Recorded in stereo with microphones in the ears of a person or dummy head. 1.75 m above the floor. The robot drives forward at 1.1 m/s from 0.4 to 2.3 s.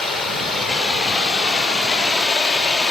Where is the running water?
Centre (ahead or behind), 5.5 m.